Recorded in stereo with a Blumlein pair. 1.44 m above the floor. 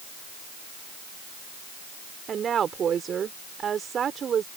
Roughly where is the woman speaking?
Ahead right.